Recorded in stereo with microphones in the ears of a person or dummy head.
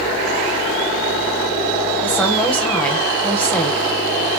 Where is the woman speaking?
5° left (ahead or behind), 1.8 m.